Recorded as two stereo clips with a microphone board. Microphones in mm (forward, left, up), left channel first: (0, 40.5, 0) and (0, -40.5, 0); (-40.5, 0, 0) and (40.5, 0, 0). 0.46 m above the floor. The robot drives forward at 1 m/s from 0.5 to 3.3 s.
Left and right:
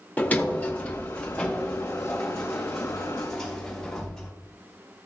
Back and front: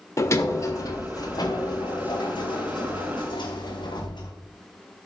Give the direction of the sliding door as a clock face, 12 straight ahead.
7 o'clock.